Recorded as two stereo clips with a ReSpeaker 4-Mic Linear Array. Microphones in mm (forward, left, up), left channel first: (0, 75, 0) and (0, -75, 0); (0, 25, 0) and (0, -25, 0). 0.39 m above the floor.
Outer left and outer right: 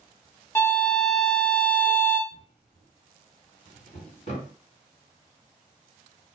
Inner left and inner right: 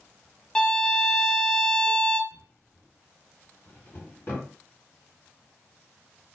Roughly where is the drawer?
Left.